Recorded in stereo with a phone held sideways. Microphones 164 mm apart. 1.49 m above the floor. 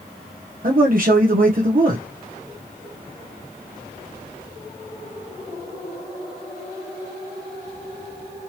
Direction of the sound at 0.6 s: 60° right (ahead or behind).